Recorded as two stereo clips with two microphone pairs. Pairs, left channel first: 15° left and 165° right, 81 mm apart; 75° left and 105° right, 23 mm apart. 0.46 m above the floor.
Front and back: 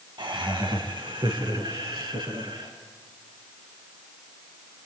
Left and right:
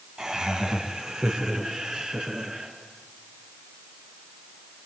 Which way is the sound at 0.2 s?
165° right.